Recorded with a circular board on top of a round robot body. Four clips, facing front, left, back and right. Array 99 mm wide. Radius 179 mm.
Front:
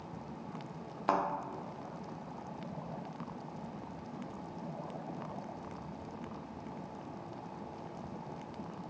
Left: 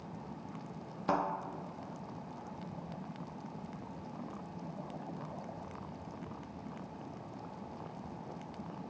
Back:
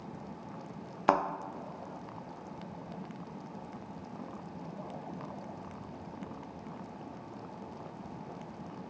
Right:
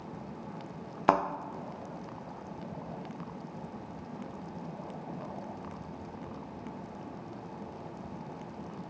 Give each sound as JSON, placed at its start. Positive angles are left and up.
{"t": 1.1, "sound": "a thud", "azimuth_deg": -120, "distance_m": 0.5}